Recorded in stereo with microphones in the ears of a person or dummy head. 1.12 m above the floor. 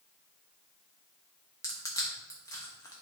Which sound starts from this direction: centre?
Crushing, at 1.6 s.